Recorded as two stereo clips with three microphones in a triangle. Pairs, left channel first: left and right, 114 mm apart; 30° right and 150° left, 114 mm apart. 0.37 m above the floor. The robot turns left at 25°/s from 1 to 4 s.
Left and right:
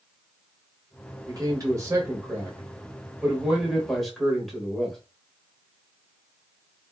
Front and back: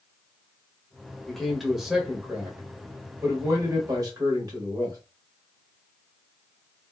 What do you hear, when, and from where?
1.3 s a man speaking: 115° right, 1.1 m; by 5.0 s straight behind, 1.1 m